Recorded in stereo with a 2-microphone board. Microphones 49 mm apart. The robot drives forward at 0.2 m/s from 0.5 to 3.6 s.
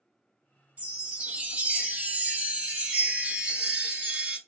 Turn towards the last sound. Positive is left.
turn(degrees=-25)  # may be behind; listen again after turning